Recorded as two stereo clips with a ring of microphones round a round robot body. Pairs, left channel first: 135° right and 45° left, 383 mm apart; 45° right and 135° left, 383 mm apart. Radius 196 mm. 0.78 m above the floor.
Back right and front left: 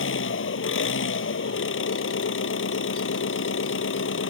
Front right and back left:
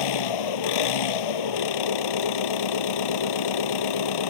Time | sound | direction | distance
0.0 | an engine running | 75° right | ?